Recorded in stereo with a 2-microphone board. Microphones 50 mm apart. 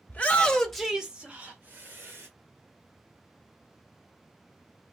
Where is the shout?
30° left (ahead or behind), 0.9 m; by 2.3 s 55° right (ahead or behind), 1.3 m.